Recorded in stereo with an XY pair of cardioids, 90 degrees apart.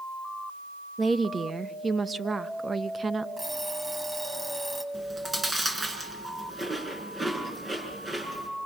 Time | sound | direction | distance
1.0 | a woman speaking | 35° right | 1.1 m
3.4 | an alarm clock | 25° right | 3.5 m
4.9 | chewing | 25° right | 6.5 m